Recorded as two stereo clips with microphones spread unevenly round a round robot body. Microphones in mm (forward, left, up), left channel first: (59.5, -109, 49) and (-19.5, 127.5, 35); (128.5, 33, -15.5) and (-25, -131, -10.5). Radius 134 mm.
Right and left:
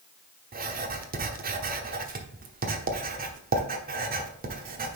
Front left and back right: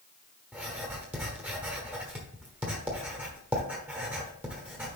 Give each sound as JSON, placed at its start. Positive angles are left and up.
{"t": 0.5, "sound": "writing", "azimuth_deg": 145, "distance_m": 1.1}